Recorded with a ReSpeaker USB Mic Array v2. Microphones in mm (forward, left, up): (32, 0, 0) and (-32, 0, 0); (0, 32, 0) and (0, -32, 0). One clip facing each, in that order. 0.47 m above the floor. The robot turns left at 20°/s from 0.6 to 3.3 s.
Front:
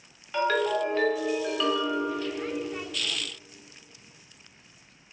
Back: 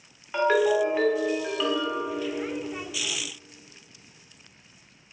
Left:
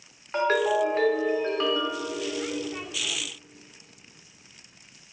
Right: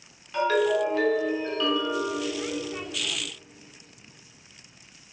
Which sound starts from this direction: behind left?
A ringtone, at 0.3 s.